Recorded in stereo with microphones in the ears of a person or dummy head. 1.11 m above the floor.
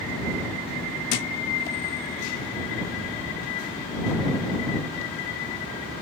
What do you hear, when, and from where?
1.1 s a thud: 45° left (ahead or behind)